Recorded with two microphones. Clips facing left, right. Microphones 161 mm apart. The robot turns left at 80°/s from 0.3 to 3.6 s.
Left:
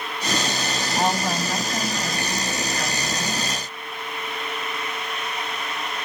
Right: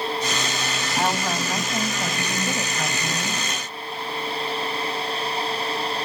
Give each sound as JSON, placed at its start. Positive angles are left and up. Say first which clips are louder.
{"t": 1.0, "sound": "a woman speaking", "louder": "left 1 dB", "side_deg": 15, "distance_m": 1.2}